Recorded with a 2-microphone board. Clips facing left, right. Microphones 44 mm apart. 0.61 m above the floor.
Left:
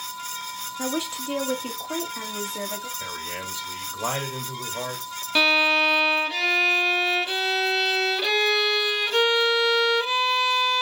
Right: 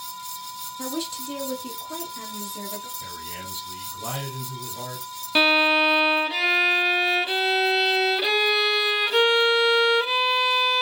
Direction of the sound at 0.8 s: 30° left (ahead or behind).